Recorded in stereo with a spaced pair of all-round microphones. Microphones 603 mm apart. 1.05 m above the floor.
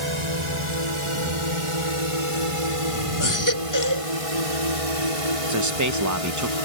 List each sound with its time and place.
0.0 s a drone: 50° right (ahead or behind); by 6.7 s 65° right (ahead or behind)
3.2 s a baby crying: 30° left (ahead or behind)
5.5 s a man speaking: 30° right (ahead or behind)